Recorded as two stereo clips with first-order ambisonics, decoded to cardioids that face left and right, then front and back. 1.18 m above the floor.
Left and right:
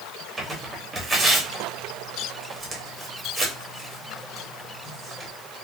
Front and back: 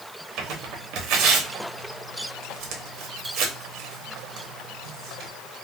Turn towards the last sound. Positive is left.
turn(degrees=-165)